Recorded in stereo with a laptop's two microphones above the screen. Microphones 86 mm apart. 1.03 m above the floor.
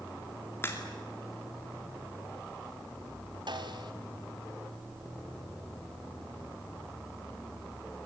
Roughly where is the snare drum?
Right.